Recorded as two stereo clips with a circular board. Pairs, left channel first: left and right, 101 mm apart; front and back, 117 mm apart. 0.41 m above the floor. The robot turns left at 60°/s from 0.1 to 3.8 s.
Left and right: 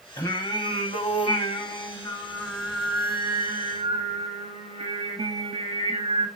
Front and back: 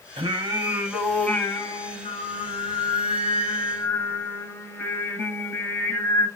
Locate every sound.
0.2 s singing: 145° left, 0.5 m; by 6.3 s 75° right, 0.5 m